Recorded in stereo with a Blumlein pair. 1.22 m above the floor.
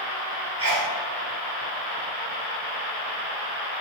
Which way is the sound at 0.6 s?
65° right.